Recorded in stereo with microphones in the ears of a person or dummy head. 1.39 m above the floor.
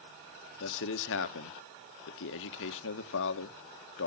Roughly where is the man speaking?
Left.